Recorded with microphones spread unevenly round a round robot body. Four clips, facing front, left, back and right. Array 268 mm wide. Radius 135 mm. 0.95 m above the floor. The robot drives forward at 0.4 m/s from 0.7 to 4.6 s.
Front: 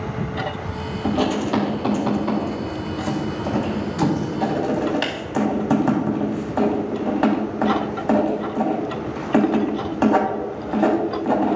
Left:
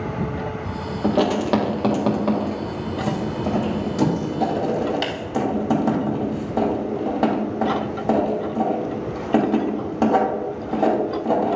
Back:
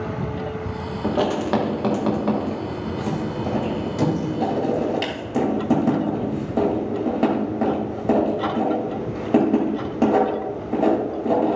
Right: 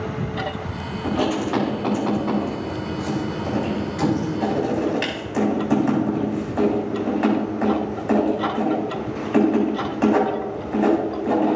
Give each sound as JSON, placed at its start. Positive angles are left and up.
{"t": 1.0, "sound": "writing", "azimuth_deg": 110, "distance_m": 1.9}